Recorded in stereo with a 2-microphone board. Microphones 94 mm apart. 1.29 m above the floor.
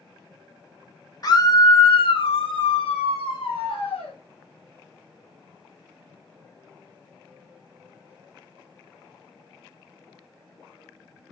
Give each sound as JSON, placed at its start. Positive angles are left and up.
{"t": 1.2, "sound": "a scream", "side_deg": 45, "distance_m": 1.2}